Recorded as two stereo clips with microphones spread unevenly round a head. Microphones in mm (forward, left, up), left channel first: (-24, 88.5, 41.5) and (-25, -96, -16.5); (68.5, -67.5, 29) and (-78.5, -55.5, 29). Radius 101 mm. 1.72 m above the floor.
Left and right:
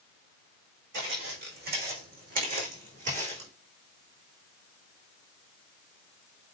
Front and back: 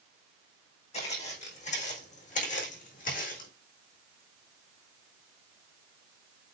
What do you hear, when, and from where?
0.9 s footsteps: 45° right, 5.5 m; by 3.5 s 25° right, 5 m